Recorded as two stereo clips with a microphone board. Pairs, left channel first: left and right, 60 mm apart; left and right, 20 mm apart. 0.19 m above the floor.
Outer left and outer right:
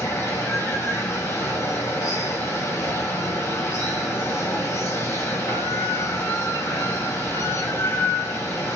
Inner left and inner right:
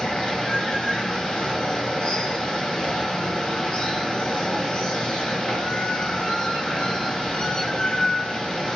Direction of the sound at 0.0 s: 55° left (ahead or behind).